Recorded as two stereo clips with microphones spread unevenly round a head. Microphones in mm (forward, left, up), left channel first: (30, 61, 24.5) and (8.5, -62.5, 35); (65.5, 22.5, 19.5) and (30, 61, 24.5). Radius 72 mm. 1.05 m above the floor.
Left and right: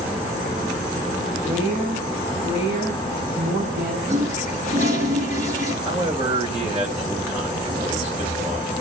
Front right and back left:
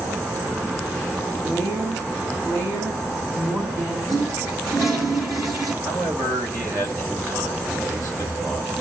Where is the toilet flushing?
145° right, 5.5 m.